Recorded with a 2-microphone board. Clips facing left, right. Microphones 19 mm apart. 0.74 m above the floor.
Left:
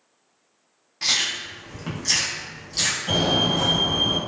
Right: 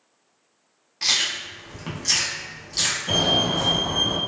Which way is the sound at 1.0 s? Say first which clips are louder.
Even; 10° right (ahead or behind).